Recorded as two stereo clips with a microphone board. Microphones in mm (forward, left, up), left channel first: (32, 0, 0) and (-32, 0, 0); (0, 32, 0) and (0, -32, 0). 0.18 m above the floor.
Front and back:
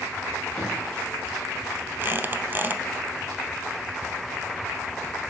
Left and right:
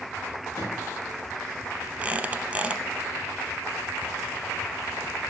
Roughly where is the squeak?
Behind right.